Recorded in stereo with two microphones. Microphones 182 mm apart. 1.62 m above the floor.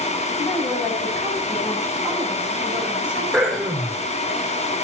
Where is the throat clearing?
5° left (ahead or behind), 7 m.